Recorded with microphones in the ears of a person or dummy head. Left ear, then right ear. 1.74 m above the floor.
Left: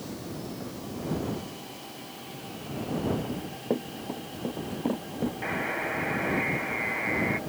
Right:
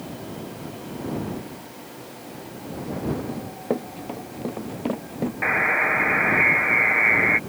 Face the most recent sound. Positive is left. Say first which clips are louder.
# right 12 dB
turn(degrees=-50)  # may be behind; listen again after turning